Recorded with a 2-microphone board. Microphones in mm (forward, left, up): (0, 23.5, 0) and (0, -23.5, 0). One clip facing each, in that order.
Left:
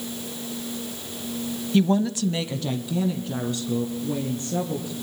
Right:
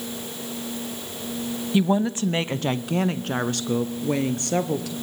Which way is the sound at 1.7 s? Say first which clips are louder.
Even; 10° right (ahead or behind).